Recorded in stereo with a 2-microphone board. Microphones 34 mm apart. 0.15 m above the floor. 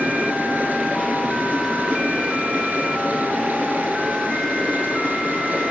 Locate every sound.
0.0 s running water: 65° right (ahead or behind), 1.0 m